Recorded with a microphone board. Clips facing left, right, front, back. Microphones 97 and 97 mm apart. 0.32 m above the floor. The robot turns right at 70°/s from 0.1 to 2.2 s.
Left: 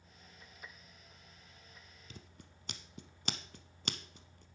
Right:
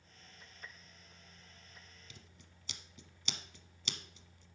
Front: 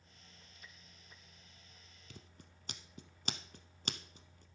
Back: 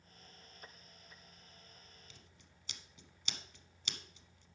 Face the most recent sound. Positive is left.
turn(degrees=45)